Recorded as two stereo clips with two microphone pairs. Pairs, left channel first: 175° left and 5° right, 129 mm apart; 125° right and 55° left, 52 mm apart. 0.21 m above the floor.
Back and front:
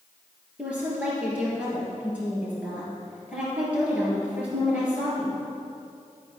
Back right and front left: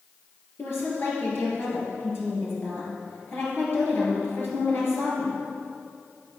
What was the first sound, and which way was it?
A woman speaking, 85° right.